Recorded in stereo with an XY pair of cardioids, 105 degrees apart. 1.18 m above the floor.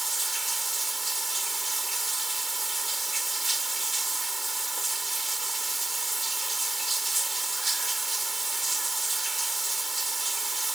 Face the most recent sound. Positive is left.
turn(degrees=-20)